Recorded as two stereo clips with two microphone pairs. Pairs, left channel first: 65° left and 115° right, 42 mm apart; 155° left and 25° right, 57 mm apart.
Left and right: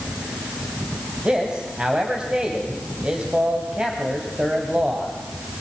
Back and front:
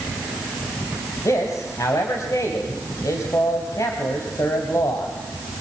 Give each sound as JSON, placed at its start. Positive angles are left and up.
{"t": 1.2, "sound": "a man speaking", "azimuth_deg": 175, "distance_m": 3.0}